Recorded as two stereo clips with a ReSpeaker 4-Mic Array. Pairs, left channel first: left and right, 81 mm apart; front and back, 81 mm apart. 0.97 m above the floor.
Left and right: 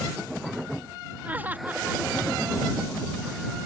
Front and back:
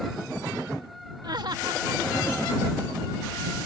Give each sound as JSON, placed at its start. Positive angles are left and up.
{"t": 1.2, "sound": "laughter", "azimuth_deg": -160}